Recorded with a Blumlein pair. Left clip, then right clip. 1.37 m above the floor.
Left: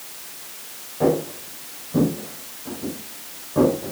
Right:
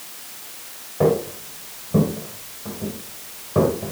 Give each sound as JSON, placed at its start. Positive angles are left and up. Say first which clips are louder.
{"t": 1.0, "sound": "footsteps", "louder": "right 1 dB", "azimuth_deg": -65, "distance_m": 8.5}